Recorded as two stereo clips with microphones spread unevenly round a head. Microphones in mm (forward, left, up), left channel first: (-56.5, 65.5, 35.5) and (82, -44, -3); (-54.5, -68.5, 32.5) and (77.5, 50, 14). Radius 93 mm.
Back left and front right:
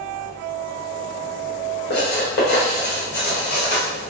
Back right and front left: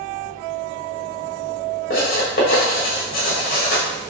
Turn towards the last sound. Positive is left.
turn(degrees=180)